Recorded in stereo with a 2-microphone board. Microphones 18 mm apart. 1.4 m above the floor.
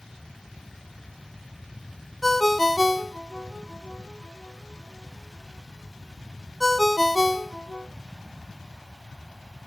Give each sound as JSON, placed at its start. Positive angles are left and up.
{"t": 2.2, "sound": "a ringtone", "side_deg": 5, "distance_m": 0.6}